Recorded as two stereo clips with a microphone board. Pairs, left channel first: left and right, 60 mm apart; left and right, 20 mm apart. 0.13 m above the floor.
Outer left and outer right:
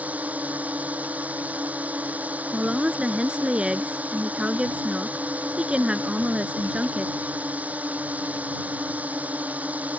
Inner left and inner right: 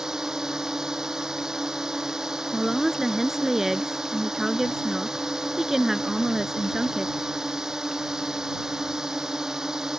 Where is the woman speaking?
15° right (ahead or behind).